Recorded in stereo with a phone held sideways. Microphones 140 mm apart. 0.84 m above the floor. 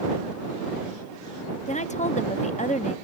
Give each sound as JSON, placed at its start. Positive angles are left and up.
{"t": 1.7, "sound": "a woman speaking", "side_deg": 55}